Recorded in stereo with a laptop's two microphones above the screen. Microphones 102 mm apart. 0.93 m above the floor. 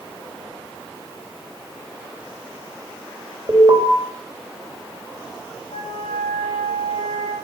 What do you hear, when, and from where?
3.5 s an alarm: 40° right (ahead or behind), 5 m
5.7 s a flute: 70° left (ahead or behind), 3.5 m